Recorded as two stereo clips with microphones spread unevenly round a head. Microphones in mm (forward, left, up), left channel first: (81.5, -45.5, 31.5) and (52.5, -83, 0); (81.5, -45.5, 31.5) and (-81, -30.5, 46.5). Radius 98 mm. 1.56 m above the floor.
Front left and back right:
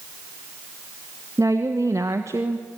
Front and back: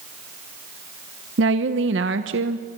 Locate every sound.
1.4 s a woman speaking: 150° left, 1.1 m